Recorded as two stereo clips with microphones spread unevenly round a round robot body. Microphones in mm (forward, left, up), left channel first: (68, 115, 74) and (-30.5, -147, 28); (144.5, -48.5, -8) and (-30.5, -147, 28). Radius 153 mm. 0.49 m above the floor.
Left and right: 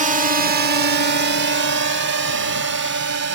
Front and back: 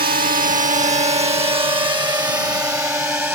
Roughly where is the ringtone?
No ringtone in this recording.